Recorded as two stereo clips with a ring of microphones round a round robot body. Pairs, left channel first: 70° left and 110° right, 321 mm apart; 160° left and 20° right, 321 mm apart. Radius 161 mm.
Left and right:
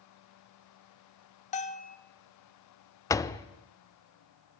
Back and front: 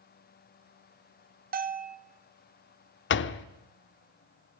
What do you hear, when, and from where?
1.5 s a bell: 15° left, 1.0 m
3.1 s a door slam: 140° left, 0.6 m